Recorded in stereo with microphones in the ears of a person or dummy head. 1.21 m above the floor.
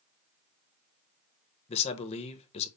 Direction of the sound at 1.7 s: 35° left (ahead or behind).